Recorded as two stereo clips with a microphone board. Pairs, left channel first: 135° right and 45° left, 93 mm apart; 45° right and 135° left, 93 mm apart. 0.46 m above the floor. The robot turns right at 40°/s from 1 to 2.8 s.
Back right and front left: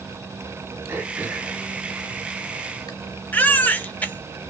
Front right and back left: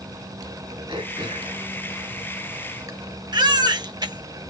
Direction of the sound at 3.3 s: 155° left.